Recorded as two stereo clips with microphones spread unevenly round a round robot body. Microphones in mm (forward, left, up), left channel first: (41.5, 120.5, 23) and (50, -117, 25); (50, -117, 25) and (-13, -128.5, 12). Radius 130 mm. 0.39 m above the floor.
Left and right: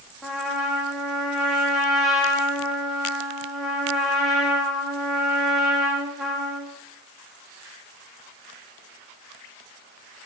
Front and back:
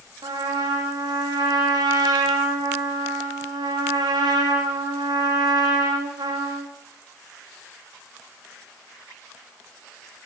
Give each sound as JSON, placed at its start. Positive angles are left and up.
{"t": 0.2, "sound": "a trumpet", "azimuth_deg": -175, "distance_m": 5.0}